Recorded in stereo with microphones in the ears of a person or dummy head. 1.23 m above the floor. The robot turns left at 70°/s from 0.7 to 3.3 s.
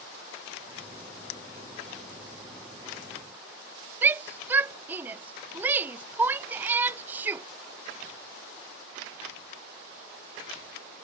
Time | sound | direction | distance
1.3 | breaking glass | 75° left (ahead or behind) | ?
4.0 | a shout | 10° right (ahead or behind) | ?